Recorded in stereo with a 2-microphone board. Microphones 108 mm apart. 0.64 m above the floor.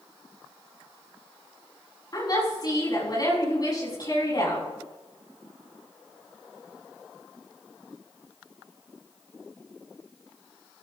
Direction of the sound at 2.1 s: 40° left (ahead or behind).